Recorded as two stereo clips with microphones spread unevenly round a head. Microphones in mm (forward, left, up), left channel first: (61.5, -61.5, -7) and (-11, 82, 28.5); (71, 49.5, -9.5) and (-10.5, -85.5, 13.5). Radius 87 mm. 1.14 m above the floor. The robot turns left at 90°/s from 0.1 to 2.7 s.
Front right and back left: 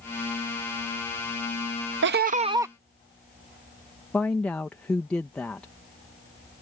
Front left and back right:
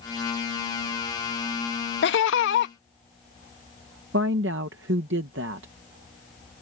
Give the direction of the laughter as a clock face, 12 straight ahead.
9 o'clock.